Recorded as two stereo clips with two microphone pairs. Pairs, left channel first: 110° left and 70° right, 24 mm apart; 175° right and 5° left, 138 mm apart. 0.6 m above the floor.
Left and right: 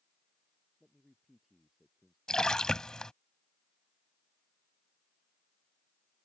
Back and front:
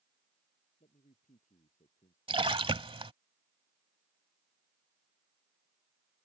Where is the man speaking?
155° right.